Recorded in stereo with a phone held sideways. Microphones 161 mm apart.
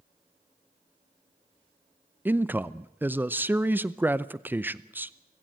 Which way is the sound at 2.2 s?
10° right (ahead or behind).